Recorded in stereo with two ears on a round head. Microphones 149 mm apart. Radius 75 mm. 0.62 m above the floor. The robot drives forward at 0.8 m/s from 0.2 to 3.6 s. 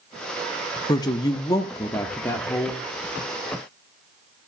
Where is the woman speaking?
25° left (ahead or behind), 0.9 m; by 2.8 s 10° left (ahead or behind), 1.8 m.